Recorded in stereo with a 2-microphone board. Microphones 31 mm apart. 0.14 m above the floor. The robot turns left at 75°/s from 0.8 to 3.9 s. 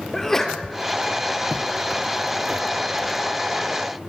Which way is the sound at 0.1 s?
10° left (ahead or behind).